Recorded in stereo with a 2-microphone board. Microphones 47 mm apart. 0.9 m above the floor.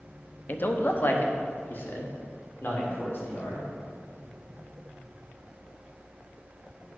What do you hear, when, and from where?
0.5 s a man speaking: 45° left (ahead or behind), 0.7 m; by 3.7 s 50° left (ahead or behind), 2.5 m